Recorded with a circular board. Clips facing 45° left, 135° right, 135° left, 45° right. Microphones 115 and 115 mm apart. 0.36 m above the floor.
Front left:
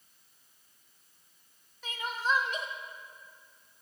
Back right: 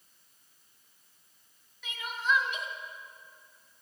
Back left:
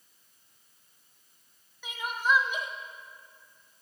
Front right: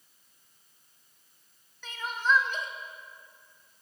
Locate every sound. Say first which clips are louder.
1.8 s crying: even, even; 65° left, 1.0 m